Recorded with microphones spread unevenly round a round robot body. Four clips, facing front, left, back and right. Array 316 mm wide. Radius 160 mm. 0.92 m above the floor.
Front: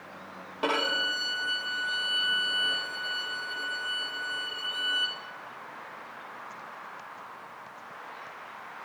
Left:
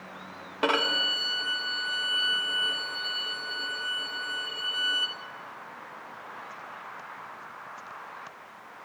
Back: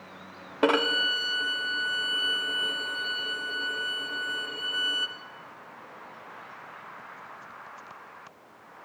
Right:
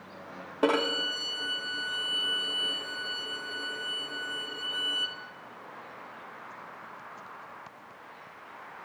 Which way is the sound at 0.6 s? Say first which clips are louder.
Right 1 dB, back 5 dB; 155° right.